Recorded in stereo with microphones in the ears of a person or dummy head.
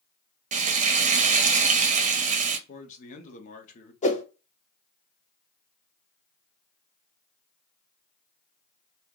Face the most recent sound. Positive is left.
turn(degrees=35)  # may be behind; listen again after turning